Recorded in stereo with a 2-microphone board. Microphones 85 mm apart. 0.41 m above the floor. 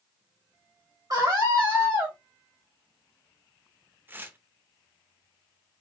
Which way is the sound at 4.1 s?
25° right (ahead or behind).